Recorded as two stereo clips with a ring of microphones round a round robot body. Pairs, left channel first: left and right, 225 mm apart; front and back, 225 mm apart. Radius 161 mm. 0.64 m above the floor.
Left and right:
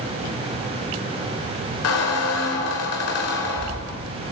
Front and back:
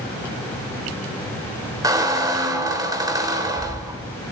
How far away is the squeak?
About 1.8 m.